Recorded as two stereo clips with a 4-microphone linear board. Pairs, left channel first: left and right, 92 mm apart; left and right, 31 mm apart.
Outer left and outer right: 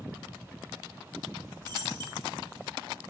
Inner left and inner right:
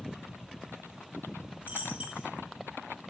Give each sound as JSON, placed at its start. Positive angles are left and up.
{"t": 1.6, "sound": "a dropped coin", "side_deg": -50, "distance_m": 3.5}